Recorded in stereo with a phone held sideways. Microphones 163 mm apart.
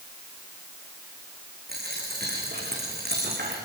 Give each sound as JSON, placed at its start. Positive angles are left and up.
{"t": 1.7, "sound": "a dropped coin", "side_deg": -80, "distance_m": 7.5}